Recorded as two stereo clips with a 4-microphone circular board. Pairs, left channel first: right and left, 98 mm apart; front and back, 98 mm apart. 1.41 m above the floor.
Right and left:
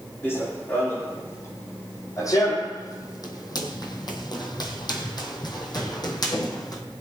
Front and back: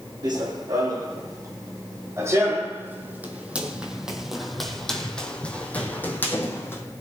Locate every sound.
0.2 s running footsteps: 150° right, 3 m; by 6.8 s 55° right, 2.5 m